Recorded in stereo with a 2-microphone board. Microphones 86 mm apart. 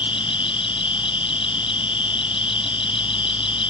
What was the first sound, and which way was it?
An insect, 85° left.